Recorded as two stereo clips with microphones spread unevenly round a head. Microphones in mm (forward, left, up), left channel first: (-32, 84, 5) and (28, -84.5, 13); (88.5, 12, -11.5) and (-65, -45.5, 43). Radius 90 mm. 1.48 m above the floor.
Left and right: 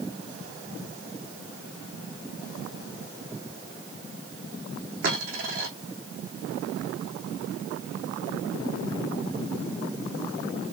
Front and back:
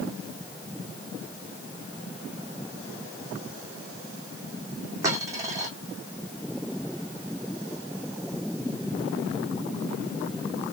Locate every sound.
5.0 s a dropped coin: 105° right, 3 m